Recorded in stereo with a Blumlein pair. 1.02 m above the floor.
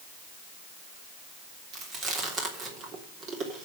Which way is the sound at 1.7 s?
25° right.